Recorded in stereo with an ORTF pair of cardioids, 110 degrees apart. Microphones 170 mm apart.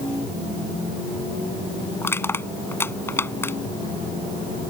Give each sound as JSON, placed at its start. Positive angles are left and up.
{"t": 2.0, "sound": "crushing", "azimuth_deg": 15}